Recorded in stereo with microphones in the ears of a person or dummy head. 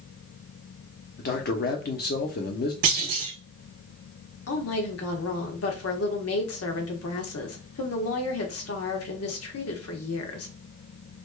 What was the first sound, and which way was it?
A man speaking, 45° left (ahead or behind).